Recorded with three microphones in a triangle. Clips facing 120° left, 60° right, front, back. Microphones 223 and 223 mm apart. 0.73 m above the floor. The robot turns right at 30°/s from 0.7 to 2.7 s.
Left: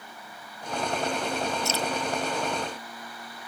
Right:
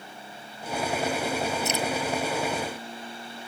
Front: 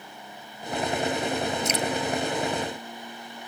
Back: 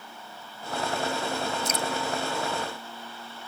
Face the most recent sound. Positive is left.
turn(degrees=40)